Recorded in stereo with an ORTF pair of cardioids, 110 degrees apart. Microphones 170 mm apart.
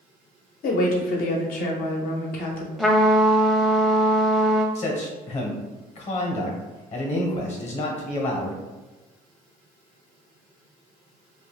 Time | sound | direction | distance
0.6 | a woman speaking | 70° left | 0.9 m
2.8 | a trumpet | straight ahead | 0.5 m
4.8 | a man speaking | 45° left | 1.0 m